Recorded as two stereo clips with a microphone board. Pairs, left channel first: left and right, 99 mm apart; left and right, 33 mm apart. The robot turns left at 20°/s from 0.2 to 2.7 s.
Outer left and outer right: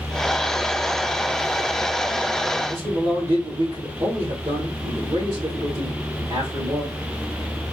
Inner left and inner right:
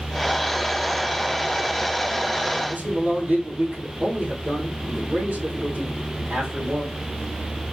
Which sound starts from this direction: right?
A man speaking, at 2.7 s.